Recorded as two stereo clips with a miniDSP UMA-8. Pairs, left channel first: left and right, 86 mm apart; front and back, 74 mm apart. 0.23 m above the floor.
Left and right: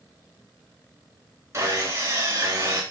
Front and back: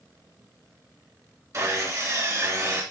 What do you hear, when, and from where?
1.5 s sawing: 145° right, 3.5 m